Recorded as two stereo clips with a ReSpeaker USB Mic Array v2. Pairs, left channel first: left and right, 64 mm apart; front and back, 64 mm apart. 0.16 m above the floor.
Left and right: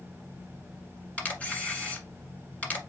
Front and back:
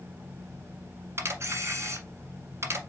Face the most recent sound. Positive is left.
turn(degrees=150)